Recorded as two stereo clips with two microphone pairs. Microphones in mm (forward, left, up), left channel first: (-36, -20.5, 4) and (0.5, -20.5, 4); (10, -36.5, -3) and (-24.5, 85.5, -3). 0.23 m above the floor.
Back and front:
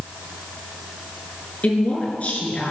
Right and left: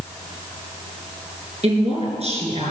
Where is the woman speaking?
130° left, 3.5 m.